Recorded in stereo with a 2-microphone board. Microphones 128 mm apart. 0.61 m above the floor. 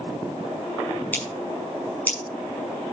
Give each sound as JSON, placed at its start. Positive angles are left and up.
{"t": 1.1, "sound": "scissors", "side_deg": 15, "distance_m": 6.0}